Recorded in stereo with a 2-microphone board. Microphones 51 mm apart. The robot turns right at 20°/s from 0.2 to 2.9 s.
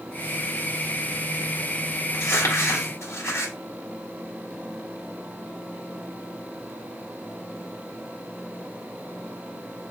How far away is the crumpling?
About 1.4 m.